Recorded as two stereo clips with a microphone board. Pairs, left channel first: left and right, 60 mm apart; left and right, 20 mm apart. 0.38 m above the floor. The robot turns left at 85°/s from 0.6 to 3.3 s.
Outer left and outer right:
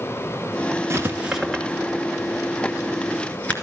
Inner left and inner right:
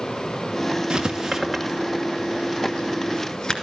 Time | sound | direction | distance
0.9 | writing | 45° right (ahead or behind) | 2 m